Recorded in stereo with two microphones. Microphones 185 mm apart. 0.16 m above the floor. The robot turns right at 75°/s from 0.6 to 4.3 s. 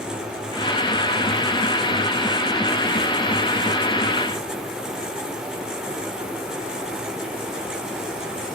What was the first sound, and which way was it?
Only background noise.